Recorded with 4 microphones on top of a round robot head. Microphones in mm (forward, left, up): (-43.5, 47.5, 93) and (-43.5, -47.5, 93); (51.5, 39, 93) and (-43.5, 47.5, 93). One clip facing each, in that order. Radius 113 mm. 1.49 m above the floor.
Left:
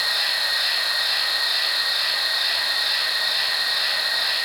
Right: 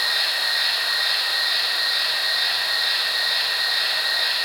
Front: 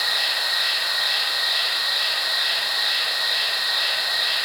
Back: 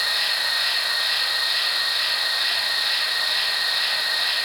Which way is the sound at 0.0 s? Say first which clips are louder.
Even, even; 15° left.